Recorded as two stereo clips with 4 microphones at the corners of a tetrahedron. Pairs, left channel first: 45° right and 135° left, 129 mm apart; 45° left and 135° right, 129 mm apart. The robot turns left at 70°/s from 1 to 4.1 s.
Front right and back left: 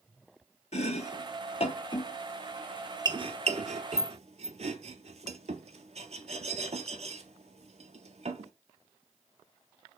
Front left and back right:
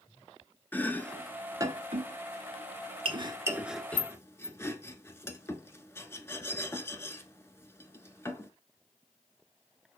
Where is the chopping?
30° right, 0.6 m; by 8.5 s 115° left, 0.6 m.